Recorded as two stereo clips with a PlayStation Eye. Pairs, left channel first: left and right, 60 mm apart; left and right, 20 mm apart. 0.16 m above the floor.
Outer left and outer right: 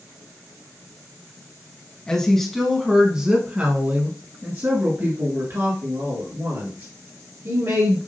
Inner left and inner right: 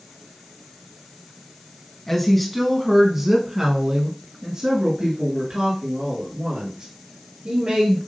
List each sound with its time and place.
2.1 s a woman speaking: 15° left (ahead or behind), 1.2 m; by 8.0 s 60° right (ahead or behind), 3 m